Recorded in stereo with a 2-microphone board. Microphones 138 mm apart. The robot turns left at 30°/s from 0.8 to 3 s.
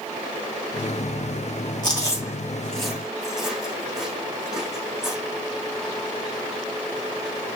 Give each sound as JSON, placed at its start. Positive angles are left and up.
{"t": 1.8, "sound": "chewing", "side_deg": 30, "distance_m": 7.5}